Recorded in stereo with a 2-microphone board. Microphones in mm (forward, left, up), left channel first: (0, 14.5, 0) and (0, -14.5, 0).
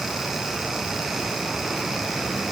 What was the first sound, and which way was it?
Only background noise.